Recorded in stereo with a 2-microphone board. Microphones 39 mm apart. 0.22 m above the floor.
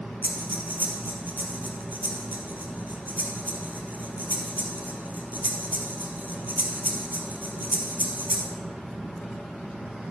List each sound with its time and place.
0.2 s breathing: 50° right (ahead or behind), 1.7 m